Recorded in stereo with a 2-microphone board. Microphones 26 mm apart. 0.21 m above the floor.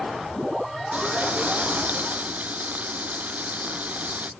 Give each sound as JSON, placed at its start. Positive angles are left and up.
{"t": 0.9, "sound": "frying", "side_deg": -70}